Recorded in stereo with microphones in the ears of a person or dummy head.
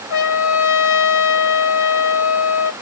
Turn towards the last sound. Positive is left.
turn(degrees=80)